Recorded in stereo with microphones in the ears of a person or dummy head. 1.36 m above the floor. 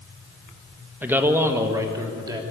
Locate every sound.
1.0 s a man speaking: 10° right (ahead or behind), 1.3 m; by 2.4 s 20° right (ahead or behind), 3 m